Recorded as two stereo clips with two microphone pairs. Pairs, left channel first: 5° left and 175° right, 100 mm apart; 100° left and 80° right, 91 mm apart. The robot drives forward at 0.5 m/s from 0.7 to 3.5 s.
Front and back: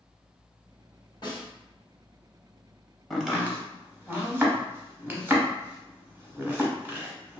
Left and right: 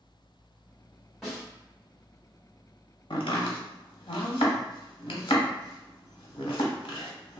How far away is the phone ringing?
I don't hear a phone ringing.